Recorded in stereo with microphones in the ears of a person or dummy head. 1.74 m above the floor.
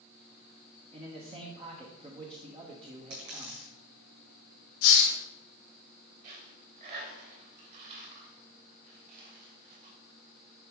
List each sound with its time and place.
0.9 s a man speaking: 25° right (ahead or behind), 1.2 m
3.1 s a dropped coin: 65° right (ahead or behind), 4 m
4.8 s a hiss: 65° left (ahead or behind), 2.0 m
6.2 s a dropped coin: 45° right (ahead or behind), 4 m